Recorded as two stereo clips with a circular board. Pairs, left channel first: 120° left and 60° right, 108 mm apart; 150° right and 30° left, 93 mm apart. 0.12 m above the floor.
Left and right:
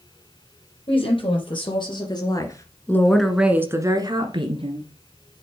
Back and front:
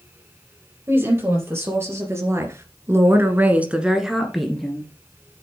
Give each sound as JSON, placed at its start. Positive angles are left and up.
{"t": 0.9, "sound": "a woman speaking", "azimuth_deg": 90, "distance_m": 4.0}